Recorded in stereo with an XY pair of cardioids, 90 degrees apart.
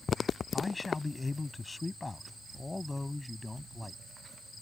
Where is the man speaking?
30° left; by 4.0 s 15° left.